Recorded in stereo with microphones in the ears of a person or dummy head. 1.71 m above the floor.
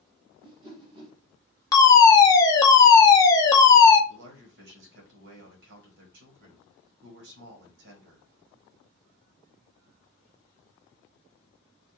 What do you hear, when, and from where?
0.4 s a whoosh: 25° right (ahead or behind), 1.0 m
1.7 s a fire alarm: 15° left (ahead or behind), 0.6 m
4.1 s a man speaking: 65° right (ahead or behind), 1.1 m